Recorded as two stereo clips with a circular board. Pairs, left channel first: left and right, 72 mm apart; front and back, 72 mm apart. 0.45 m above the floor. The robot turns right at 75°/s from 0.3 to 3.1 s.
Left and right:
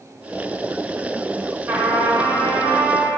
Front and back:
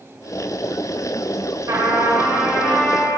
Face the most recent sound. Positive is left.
turn(degrees=-40)